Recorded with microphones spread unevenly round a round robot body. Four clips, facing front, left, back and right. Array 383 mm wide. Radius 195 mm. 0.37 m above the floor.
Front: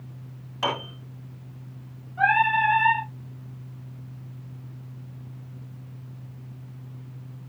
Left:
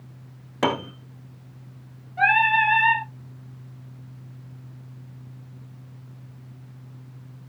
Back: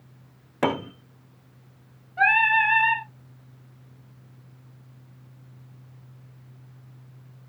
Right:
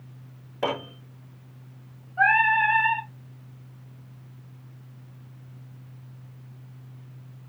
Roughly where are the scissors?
I don't hear scissors.